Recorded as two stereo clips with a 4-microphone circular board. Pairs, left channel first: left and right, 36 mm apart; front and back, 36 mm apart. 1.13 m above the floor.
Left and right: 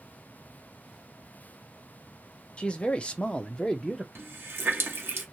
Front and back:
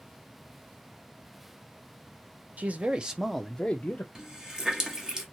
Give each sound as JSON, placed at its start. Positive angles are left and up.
{"t": 2.6, "sound": "a man speaking", "azimuth_deg": 145, "distance_m": 0.8}
{"t": 4.2, "sound": "a running tap", "azimuth_deg": -105, "distance_m": 0.8}